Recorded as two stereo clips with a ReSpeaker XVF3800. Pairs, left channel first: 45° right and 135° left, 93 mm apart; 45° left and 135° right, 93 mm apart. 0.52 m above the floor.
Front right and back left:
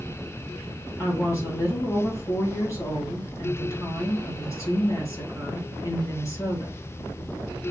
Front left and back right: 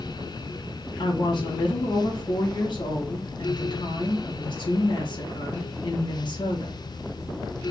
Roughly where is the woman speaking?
Ahead.